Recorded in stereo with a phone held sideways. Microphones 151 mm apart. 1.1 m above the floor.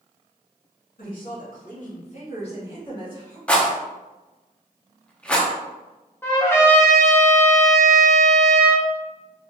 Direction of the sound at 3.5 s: 10° left (ahead or behind).